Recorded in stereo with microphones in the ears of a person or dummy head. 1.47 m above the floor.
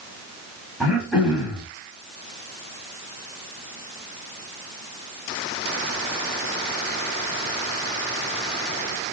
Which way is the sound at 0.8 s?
Centre (ahead or behind).